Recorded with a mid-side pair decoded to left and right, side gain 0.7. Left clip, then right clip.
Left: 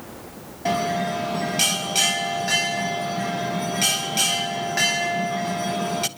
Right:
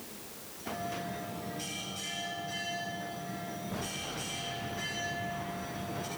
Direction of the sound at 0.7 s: 70° left.